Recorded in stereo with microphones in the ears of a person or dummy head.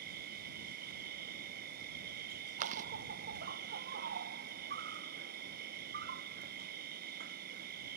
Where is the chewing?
40° right (ahead or behind).